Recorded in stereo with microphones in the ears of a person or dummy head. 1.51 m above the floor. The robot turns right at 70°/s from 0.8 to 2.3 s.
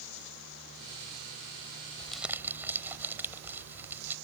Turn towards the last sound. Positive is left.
turn(degrees=-10)  # may be behind; listen again after turning